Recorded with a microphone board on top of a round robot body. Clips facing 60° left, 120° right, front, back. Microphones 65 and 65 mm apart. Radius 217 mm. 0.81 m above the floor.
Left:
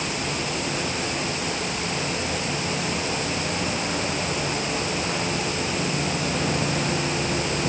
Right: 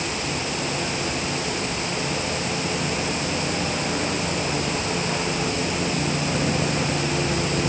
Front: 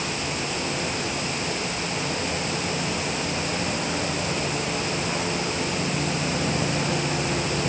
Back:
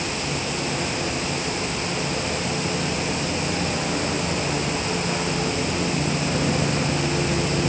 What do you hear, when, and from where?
Only background noise.